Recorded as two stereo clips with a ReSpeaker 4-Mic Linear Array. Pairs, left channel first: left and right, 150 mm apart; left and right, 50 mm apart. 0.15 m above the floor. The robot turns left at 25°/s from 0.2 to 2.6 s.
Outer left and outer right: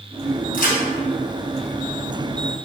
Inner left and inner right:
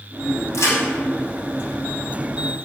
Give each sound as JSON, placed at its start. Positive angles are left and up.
{"t": 0.5, "sound": "a crack", "side_deg": 70, "distance_m": 1.8}